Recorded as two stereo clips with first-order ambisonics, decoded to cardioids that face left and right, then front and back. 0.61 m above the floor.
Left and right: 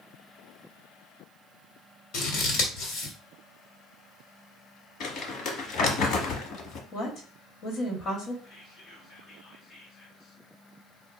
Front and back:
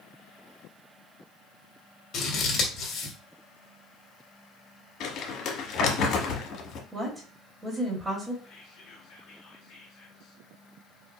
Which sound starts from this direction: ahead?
Whispering, at 8.4 s.